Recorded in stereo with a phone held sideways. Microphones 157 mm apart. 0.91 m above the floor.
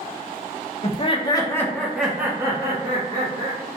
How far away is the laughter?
About 0.8 m.